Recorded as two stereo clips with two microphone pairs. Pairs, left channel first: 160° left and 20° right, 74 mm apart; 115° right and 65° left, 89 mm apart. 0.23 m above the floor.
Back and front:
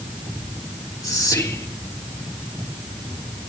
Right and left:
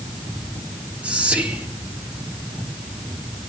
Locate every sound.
1.0 s whispering: 140° left, 3 m